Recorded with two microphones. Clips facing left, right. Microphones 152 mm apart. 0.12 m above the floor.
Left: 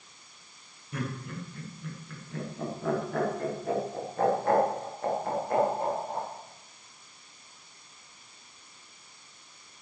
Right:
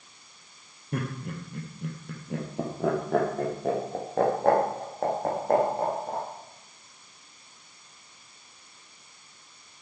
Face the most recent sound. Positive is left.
turn(degrees=-70)  # may be behind; listen again after turning